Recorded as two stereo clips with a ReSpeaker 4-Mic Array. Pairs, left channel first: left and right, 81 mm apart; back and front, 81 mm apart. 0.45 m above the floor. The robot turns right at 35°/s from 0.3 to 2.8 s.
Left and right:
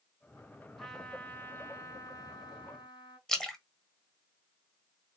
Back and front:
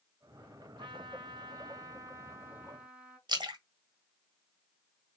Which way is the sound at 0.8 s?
Straight ahead.